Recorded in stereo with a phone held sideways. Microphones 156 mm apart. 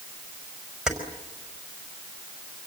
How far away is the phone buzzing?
No phone buzzing in this recording.